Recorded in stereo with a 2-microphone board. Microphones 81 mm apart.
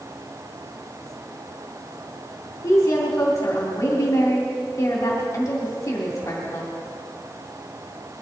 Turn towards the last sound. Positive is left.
turn(degrees=40)  # may be behind; listen again after turning